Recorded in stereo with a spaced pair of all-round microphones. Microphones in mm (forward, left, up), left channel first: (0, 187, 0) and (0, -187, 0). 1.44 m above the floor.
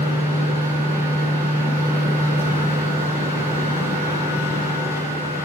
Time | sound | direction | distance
0.0 | a machine running | 10° right (ahead or behind) | 4.5 m